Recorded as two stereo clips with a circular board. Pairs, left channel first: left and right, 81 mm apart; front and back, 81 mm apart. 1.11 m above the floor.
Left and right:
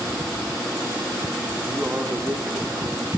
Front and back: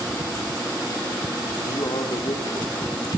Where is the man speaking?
20° right, 3 m; by 3.2 s 40° right, 2.5 m.